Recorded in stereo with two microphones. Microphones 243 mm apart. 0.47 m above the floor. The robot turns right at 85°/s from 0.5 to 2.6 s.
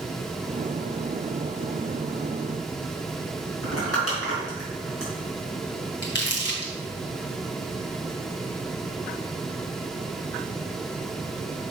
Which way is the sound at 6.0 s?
50° left (ahead or behind).